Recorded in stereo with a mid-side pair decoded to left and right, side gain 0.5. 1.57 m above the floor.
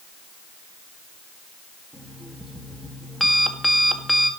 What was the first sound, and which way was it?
An alarm clock, 10° right.